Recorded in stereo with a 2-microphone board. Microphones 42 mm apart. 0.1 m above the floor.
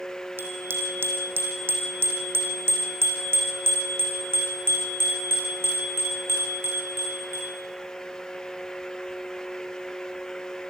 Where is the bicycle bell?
65° right (ahead or behind), 3 m.